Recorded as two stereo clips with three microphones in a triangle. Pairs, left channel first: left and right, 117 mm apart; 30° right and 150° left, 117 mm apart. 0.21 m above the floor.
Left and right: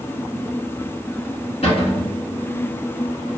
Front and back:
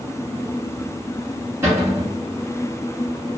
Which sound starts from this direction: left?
A cupboard door, at 1.6 s.